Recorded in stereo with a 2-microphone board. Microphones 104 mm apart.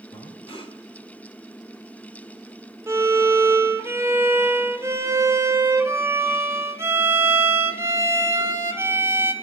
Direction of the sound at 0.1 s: 60° left (ahead or behind).